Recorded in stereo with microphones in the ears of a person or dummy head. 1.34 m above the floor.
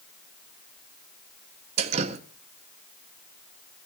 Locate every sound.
1.8 s dripping: 35° right (ahead or behind), 1.5 m